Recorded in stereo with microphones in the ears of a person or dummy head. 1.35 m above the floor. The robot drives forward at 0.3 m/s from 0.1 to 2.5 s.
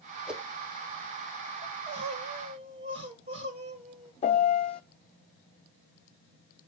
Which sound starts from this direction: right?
Crying, at 1.6 s.